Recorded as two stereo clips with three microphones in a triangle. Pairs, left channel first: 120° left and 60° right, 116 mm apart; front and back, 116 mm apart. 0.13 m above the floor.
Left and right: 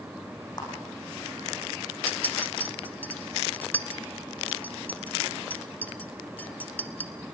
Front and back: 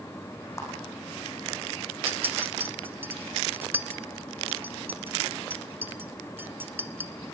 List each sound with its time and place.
0.6 s a clap: 65° left, 7 m
2.1 s a clink: 160° left, 0.9 m